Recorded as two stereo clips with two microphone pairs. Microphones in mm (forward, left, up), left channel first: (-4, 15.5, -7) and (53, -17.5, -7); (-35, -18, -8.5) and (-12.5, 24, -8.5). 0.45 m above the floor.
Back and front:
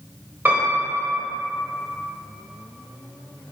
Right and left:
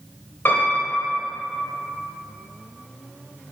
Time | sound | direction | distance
0.5 | a piano | 85° right | 1.6 m